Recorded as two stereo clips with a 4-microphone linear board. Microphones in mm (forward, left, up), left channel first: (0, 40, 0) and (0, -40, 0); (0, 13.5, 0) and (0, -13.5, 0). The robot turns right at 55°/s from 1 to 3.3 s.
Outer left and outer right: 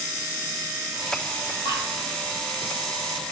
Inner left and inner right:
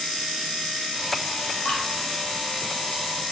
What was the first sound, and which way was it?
Dripping, 80° left.